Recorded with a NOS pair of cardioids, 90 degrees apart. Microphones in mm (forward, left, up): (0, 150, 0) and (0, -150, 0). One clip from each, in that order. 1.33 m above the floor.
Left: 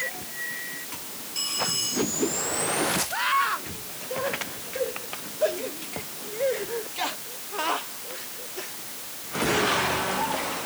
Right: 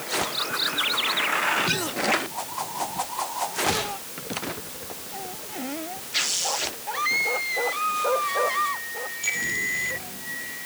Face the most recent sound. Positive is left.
No sound to turn to.